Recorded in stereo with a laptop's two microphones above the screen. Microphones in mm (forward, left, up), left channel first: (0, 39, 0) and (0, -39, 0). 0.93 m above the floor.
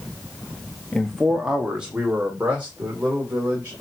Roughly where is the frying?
No frying in this recording.